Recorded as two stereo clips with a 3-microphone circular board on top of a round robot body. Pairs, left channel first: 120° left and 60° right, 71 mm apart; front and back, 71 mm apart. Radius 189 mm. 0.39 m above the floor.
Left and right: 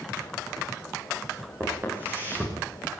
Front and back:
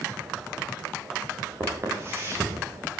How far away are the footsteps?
About 10 m.